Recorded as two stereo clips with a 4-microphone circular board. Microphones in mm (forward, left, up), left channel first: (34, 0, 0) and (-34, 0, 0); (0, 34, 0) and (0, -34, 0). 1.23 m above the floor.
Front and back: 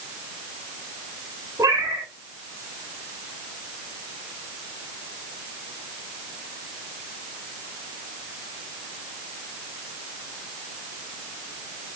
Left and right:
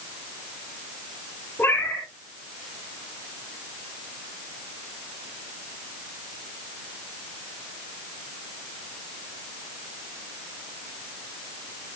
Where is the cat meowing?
145° left, 4 m.